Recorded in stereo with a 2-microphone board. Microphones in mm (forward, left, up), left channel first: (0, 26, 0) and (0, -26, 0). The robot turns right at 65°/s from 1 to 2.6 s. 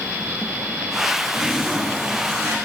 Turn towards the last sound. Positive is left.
turn(degrees=-105)